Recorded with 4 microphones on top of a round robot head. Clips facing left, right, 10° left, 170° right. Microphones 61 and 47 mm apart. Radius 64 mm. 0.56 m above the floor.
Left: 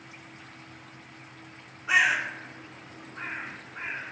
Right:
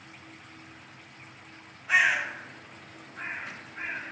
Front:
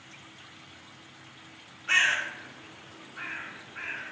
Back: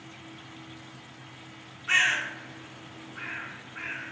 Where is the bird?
105° left, 0.9 m.